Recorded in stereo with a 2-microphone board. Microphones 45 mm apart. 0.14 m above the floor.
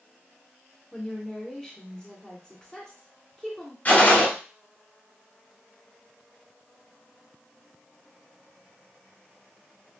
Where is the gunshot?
40° left (ahead or behind), 1.0 m.